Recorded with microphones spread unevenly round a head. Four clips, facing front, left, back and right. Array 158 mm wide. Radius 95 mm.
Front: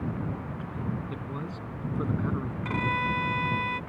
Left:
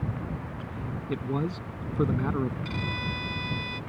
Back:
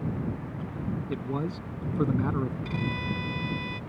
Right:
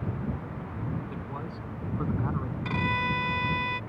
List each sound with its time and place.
1.1 s a man speaking: 145° left
2.6 s a violin: 25° right